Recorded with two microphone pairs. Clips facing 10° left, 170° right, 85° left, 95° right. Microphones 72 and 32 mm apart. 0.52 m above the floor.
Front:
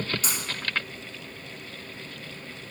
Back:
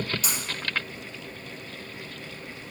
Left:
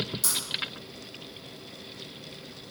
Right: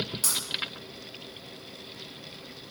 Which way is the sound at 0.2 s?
45° right.